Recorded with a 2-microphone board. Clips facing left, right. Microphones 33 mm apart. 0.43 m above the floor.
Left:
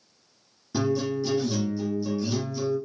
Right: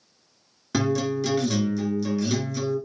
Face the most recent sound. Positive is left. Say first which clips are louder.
# right 2 dB
turn(degrees=-85)